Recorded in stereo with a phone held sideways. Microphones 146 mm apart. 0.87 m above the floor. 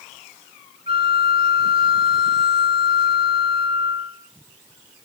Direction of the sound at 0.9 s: 45° right (ahead or behind).